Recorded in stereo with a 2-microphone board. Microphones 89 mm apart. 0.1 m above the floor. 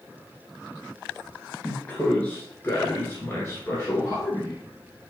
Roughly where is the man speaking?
Centre.